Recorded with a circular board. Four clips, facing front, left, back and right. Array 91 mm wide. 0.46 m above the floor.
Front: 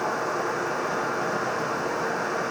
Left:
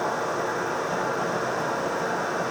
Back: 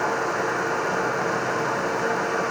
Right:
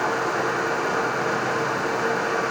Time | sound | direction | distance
0.0 | an insect | 110° right | 7 m